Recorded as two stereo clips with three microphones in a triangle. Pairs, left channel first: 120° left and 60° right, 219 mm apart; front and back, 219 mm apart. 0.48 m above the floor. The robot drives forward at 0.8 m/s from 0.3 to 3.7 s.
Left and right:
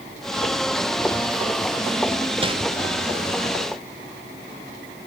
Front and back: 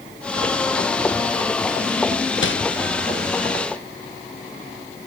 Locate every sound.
2.4 s crumpling: straight ahead, 0.6 m